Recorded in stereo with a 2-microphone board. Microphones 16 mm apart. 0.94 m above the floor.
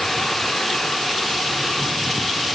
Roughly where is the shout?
No shout in this recording.